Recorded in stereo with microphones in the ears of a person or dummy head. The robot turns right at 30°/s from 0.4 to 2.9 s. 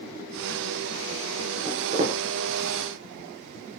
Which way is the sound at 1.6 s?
20° right (ahead or behind).